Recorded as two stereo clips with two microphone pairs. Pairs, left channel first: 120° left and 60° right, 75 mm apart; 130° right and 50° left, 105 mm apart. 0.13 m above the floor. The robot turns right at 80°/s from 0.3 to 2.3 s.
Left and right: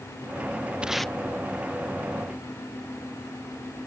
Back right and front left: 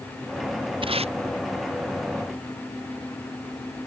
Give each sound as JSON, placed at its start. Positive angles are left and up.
{"t": 0.8, "sound": "tape being pulled", "azimuth_deg": 15}